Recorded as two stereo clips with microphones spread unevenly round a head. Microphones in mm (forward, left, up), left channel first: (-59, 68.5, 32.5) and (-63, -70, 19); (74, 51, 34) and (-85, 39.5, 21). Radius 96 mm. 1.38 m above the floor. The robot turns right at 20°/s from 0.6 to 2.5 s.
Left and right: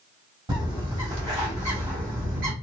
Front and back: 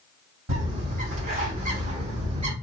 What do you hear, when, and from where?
0.5 s a bird: 145° right, 2.5 m; by 2.5 s 110° right, 2.5 m